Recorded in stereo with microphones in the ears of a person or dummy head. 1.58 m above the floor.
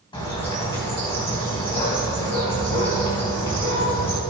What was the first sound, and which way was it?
A bird, 25° left (ahead or behind).